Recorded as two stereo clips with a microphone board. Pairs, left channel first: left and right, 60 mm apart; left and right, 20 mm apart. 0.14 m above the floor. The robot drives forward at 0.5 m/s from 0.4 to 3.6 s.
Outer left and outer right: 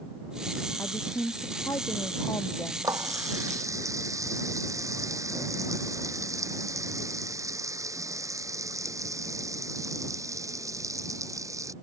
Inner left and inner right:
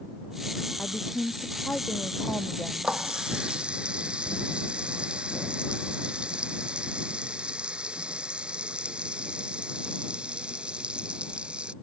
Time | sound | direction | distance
0.8 | a woman speaking | 65° left (ahead or behind) | ?
2.8 | a running tap | 65° right (ahead or behind) | ?